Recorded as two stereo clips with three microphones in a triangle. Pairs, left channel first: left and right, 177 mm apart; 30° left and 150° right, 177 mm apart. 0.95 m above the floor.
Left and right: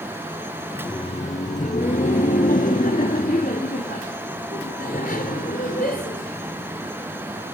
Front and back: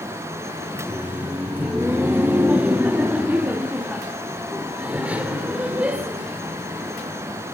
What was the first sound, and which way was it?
Laughter, 140° left.